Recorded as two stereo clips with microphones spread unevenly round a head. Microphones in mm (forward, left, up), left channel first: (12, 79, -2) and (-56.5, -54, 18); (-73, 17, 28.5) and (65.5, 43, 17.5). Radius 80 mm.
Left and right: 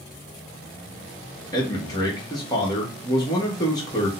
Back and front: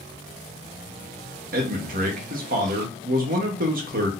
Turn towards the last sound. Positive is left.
turn(degrees=0)